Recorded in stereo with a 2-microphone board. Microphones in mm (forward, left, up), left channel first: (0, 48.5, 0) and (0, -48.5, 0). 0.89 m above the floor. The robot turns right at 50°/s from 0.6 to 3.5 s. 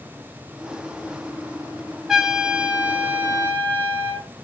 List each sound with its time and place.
2.1 s a trumpet: 5° right (ahead or behind), 0.7 m; by 4.3 s 25° right (ahead or behind), 0.7 m